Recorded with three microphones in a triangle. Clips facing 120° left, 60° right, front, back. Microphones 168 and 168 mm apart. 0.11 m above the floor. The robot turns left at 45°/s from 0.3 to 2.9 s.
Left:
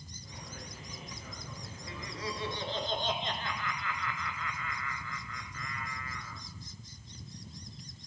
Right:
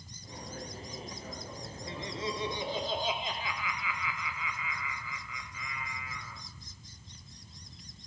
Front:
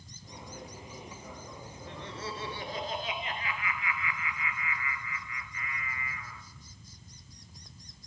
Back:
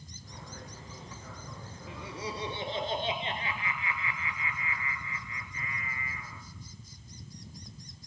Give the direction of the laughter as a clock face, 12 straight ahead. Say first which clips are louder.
Right 3 dB, back 1 dB; 3 o'clock.